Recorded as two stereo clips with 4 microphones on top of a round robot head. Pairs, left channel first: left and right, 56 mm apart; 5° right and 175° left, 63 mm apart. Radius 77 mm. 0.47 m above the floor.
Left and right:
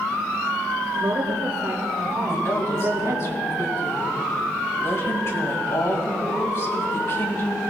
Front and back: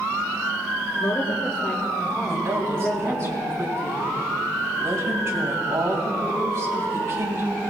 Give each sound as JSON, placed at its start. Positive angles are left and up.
{"t": 0.9, "sound": "a woman speaking", "azimuth_deg": -55, "distance_m": 2.5}
{"t": 2.3, "sound": "a woman speaking", "azimuth_deg": 130, "distance_m": 3.0}